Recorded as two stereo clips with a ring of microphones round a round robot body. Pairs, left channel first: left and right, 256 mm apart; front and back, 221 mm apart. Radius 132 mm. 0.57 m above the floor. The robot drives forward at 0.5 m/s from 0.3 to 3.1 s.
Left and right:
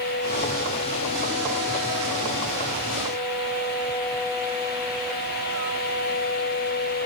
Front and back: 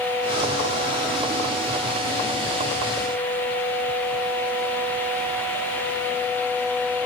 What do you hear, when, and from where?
Only background noise.